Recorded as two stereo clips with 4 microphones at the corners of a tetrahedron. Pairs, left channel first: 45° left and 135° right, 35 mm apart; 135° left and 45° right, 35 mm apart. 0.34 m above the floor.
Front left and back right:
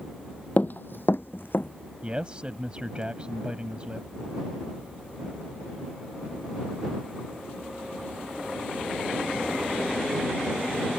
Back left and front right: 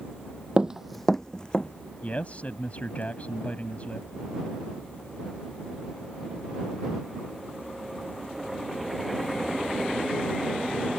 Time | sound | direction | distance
0.6 | running footsteps | 10° left | ?
2.0 | a man speaking | 175° left | ?